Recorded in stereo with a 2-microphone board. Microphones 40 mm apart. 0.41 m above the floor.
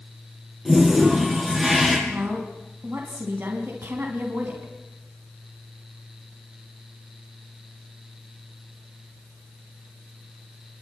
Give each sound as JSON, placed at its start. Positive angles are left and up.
{"t": 0.7, "sound": "a toilet flushing", "side_deg": -10, "distance_m": 7.0}
{"t": 2.1, "sound": "a woman speaking", "side_deg": -50, "distance_m": 4.0}